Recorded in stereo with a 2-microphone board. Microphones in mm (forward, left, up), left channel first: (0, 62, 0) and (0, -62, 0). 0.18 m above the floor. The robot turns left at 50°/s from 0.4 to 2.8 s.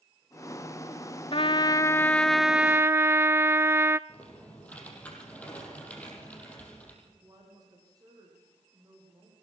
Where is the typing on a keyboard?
10° left (ahead or behind), 6.5 m.